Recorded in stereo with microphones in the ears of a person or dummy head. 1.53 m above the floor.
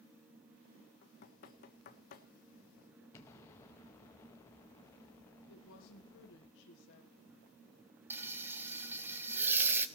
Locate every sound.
1.0 s knocking: 50° left (ahead or behind), 1.3 m
3.1 s an explosion: 20° left (ahead or behind), 0.9 m
5.5 s a woman speaking: 75° left (ahead or behind), 1.3 m
8.1 s frying: 10° right (ahead or behind), 0.8 m